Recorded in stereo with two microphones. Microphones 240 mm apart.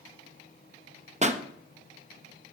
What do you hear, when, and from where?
1.2 s a pop: 30° right (ahead or behind), 0.7 m